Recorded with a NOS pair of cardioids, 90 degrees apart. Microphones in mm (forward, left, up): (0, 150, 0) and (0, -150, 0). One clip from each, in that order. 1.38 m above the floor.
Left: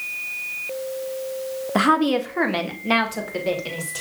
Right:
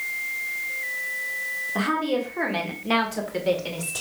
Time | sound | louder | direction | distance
1.8 | a woman speaking | left 8 dB | 60° left | 1.2 m